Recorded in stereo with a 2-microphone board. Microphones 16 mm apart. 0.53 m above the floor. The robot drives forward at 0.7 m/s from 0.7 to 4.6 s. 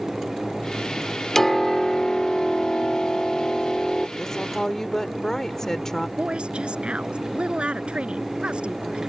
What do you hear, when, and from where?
1.4 s a piano: 20° left (ahead or behind); by 4.1 s 25° left (ahead or behind)
4.2 s a woman speaking: 30° left (ahead or behind); by 6.1 s 25° left (ahead or behind)
6.2 s a woman speaking: 85° right